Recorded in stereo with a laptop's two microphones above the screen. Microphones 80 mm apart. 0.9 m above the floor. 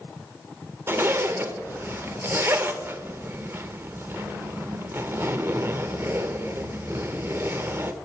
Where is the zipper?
30° right (ahead or behind), 0.5 m.